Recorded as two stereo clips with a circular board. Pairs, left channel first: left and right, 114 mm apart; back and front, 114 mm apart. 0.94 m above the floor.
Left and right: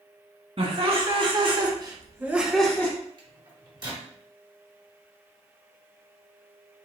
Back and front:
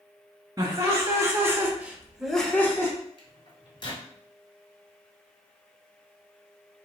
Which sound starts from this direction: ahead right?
Laughter, at 0.6 s.